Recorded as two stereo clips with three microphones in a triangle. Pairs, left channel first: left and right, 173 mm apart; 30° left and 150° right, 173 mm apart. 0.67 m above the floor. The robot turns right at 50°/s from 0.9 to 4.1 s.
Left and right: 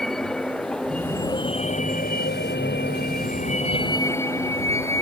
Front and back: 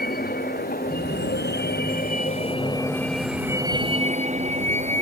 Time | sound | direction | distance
0.0 | a vehicle | 5° left | ?